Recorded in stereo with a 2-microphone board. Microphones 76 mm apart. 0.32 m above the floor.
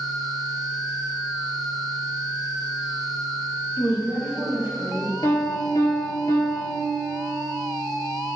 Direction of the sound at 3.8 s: 30° right (ahead or behind).